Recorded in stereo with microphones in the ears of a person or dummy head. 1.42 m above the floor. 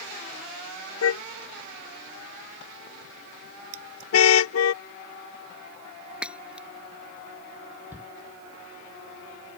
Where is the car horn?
85° left; by 4.7 s 80° left.